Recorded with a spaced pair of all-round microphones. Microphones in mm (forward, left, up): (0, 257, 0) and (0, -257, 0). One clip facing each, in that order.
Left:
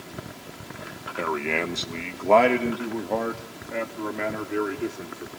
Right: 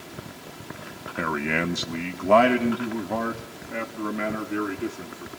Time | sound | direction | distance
1.2 | a man speaking | 35° right (ahead or behind) | 0.8 m